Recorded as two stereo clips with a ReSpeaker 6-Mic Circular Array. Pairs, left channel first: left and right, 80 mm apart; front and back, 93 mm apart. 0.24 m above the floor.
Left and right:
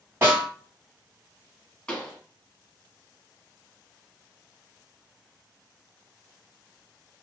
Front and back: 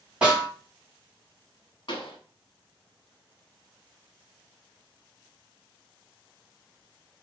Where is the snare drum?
115° right, 1.8 m.